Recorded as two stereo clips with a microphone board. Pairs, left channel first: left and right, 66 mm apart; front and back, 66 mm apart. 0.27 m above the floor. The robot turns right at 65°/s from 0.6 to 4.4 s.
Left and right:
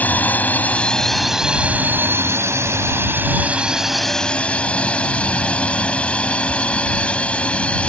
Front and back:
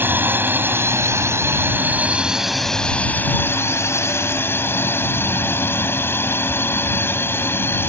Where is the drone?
140° left; by 7.9 s 30° left.